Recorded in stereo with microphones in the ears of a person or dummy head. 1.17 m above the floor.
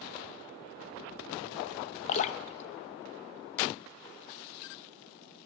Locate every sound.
2.1 s dripping: 35° left (ahead or behind), 0.5 m